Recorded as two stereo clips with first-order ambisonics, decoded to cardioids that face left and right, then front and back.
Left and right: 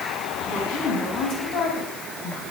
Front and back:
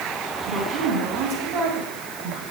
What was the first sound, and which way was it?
A woman speaking, 125° left.